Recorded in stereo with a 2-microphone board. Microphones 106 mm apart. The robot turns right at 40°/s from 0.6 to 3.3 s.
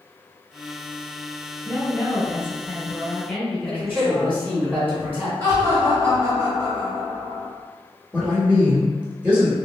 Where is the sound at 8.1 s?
15° right (ahead or behind), 0.9 m.